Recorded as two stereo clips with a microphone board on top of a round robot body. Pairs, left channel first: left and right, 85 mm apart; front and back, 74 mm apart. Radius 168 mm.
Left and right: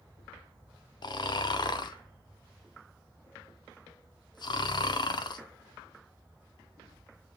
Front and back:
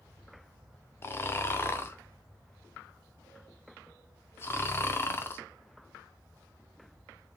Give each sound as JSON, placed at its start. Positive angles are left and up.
{"t": 1.0, "sound": "snoring", "azimuth_deg": 55, "distance_m": 0.5}